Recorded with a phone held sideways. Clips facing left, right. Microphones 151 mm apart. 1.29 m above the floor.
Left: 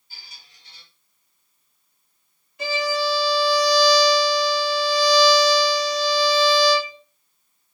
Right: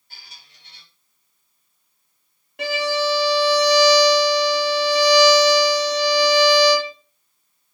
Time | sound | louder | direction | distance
0.1 | a squeak | right 1 dB | 65° right (ahead or behind) | 1.7 m
2.6 | a violin | right 2 dB | 70° right (ahead or behind) | 1.2 m